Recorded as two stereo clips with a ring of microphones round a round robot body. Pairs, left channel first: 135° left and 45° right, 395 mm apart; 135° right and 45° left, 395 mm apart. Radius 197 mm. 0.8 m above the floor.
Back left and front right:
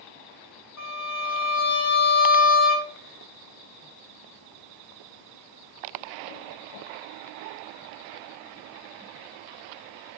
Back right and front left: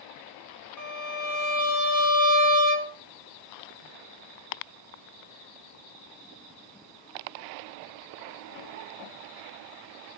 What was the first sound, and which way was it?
A violin, 175° right.